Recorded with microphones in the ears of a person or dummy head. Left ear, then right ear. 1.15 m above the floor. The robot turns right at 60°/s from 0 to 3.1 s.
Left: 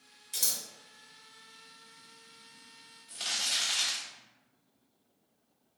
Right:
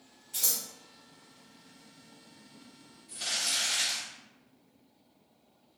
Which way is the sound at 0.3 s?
45° left (ahead or behind).